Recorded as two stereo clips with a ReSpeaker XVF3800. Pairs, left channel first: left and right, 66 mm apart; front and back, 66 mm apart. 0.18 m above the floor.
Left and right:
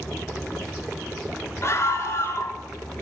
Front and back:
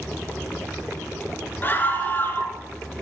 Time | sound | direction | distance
1.6 | a scream | 55° left | 2.5 m